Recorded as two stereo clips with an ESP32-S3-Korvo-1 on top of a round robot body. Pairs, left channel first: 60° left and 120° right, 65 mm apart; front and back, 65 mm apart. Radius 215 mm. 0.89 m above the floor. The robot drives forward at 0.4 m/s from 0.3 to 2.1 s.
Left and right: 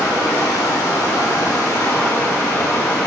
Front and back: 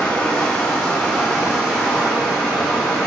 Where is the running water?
75° left, 1.2 m; by 3.1 s 110° left, 1.3 m.